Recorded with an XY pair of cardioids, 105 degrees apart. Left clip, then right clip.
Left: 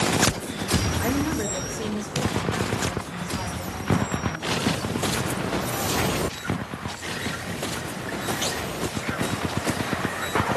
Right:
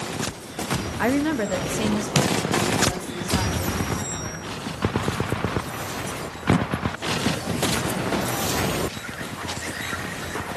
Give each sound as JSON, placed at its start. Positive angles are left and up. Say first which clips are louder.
{"t": 1.0, "sound": "a woman speaking", "louder": "right 3 dB", "azimuth_deg": -65, "distance_m": 1.0}